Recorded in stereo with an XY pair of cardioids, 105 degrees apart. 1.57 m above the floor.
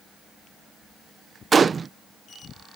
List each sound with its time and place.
1.5 s a gunshot: 35° right